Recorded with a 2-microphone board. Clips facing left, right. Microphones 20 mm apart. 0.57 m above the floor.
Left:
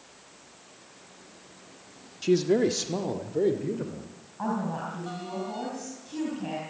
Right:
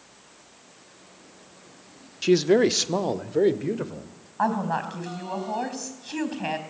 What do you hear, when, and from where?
2.2 s a man speaking: 25° right (ahead or behind), 0.8 m; by 4.3 s 30° right (ahead or behind), 2 m
4.4 s a woman speaking: 55° right (ahead or behind), 4 m